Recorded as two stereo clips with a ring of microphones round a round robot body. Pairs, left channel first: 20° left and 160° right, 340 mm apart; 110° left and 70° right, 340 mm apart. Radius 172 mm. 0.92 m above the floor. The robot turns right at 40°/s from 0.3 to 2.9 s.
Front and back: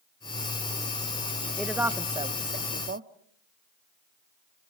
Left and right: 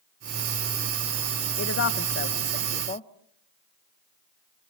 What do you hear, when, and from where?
1.6 s a woman speaking: 110° left, 1.0 m; by 3.1 s 165° left, 1.0 m